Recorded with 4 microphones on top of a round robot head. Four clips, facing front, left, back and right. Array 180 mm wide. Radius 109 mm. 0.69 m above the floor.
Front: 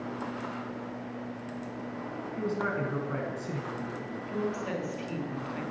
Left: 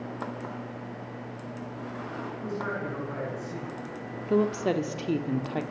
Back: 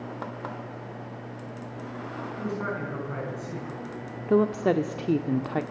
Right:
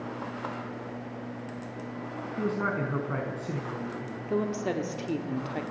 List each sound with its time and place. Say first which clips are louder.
2.4 s a man speaking: right 5 dB, front 1 dB; 75° right, 6.5 m
4.3 s a woman speaking: left 4 dB, back 11 dB; 165° left, 1.9 m